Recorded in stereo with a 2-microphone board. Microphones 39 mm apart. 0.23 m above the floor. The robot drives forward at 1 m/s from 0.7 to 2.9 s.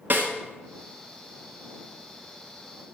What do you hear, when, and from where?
0.1 s a snare drum: 50° right (ahead or behind), 1.7 m